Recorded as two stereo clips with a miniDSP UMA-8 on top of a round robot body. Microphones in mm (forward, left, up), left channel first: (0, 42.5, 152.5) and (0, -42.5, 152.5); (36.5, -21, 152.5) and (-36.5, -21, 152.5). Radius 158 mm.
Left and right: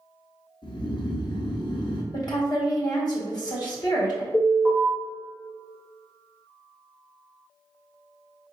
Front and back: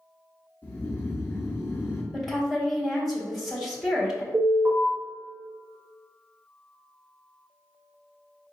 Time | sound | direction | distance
0.6 | snoring | 60° left | 0.6 m
2.1 | a woman speaking | 90° left | 1.6 m
4.3 | an alarm | 130° left | 1.6 m